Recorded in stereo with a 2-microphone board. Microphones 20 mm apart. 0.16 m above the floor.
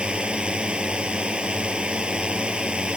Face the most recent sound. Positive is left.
turn(degrees=-55)  # may be behind; listen again after turning